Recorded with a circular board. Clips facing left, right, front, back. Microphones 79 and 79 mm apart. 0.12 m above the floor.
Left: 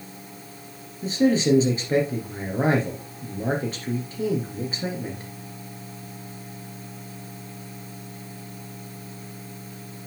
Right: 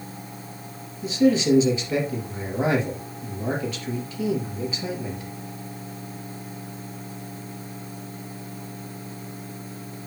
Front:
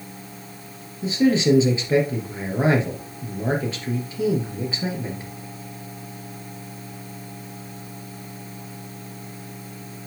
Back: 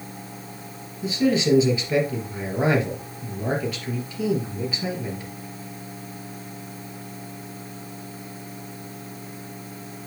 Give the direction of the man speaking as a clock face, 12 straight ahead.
10 o'clock.